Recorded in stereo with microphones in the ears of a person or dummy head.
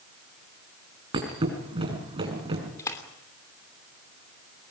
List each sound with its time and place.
1.1 s a thud: 25° right (ahead or behind), 5 m
2.8 s a splash: 15° left (ahead or behind), 3 m